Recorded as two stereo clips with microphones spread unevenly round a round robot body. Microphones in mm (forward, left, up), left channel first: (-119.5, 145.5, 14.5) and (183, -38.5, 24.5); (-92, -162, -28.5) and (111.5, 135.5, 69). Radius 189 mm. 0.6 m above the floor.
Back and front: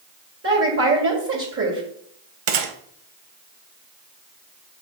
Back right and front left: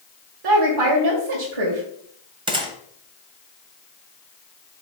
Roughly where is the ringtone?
No ringtone in this recording.